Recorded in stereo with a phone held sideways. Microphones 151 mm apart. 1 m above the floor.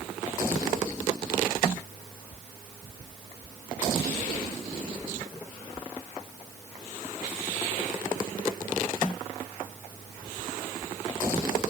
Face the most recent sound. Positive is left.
No sound to turn to.